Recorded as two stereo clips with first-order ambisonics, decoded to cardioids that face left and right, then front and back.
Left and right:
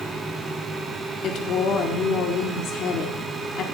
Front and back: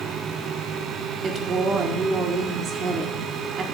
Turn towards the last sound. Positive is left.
turn(degrees=125)